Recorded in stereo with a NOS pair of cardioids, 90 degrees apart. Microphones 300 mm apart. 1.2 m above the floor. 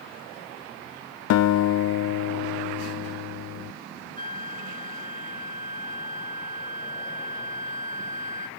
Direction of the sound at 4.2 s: 25° right.